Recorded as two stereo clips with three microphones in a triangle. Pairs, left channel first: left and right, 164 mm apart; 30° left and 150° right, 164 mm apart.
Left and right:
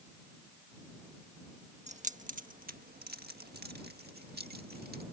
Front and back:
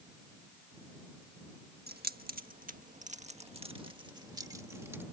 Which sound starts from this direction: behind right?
Keys jangling, at 1.9 s.